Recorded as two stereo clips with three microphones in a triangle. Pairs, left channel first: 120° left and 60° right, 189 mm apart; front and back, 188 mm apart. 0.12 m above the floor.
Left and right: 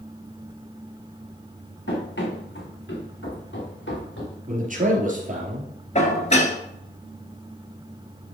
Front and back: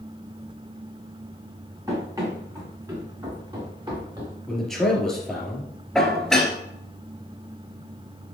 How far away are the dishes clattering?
About 1.4 m.